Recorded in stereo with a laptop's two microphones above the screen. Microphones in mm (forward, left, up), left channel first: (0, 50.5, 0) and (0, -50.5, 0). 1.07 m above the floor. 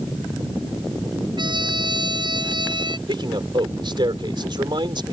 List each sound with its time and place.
1.4 s a trumpet: 50° right (ahead or behind)
3.1 s a man speaking: 50° right (ahead or behind)